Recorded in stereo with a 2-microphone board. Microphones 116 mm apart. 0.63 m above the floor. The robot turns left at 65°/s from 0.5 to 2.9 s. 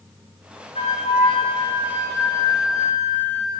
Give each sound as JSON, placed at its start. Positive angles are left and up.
{"t": 0.8, "sound": "a flute", "azimuth_deg": 115, "distance_m": 2.5}